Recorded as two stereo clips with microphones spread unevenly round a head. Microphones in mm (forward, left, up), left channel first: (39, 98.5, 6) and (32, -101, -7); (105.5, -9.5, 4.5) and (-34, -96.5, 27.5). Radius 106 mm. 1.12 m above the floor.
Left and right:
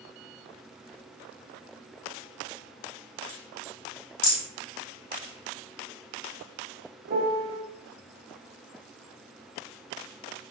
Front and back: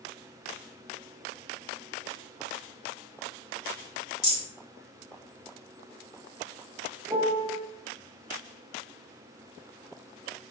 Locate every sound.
4.2 s a rattle: 105° left, 1.1 m
7.1 s a piano: 90° right, 0.6 m